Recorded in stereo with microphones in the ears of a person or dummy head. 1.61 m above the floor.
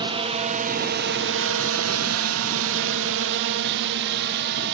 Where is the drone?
25° right (ahead or behind); by 4.7 s 50° right (ahead or behind).